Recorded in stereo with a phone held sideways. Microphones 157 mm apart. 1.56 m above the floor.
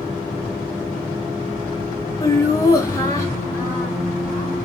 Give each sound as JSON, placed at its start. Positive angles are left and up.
{"t": 2.2, "sound": "laughter", "side_deg": 20, "distance_m": 0.9}